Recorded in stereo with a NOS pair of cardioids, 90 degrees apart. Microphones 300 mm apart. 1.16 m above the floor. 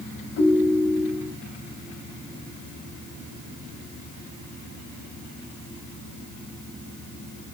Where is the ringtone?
60° left, 3.5 m.